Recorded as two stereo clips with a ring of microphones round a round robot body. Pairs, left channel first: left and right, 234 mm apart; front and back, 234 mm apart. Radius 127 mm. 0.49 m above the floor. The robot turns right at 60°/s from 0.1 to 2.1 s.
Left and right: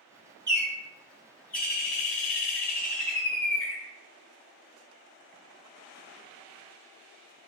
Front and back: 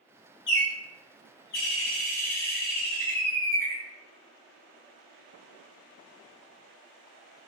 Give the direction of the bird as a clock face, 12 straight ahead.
1 o'clock.